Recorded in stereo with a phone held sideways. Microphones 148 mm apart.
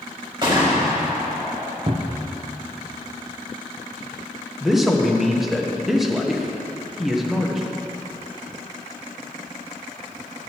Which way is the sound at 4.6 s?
Centre (ahead or behind).